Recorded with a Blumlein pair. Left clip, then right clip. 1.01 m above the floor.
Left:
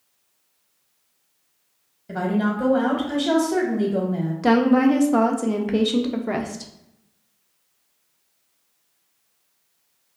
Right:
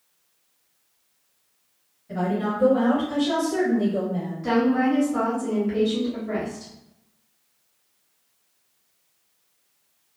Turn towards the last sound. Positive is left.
turn(degrees=40)